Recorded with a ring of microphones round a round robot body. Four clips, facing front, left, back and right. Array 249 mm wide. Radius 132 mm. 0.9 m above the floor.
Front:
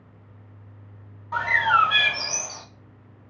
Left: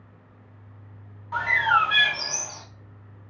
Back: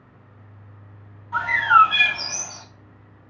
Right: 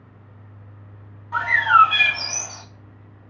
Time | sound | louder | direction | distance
1.3 | a bird | right 6 dB, back 4 dB | 20° left | 1.5 m